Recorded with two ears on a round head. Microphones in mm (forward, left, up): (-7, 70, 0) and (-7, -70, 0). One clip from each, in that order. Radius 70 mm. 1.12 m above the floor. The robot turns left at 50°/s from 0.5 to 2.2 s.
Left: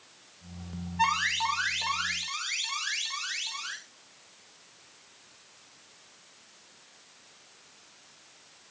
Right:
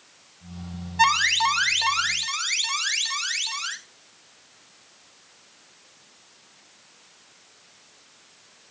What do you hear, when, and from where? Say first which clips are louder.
1.0 s an alarm: right 7 dB; 75° right, 1.9 m; by 3.8 s 135° right, 1.9 m